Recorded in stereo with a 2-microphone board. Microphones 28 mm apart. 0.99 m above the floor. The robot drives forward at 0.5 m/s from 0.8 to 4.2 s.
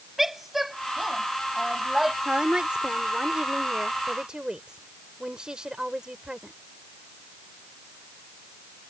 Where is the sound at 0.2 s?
5° right (ahead or behind).